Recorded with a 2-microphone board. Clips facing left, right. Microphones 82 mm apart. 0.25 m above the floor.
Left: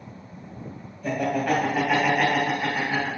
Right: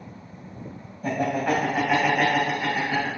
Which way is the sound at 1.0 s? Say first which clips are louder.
Even; 35° right (ahead or behind).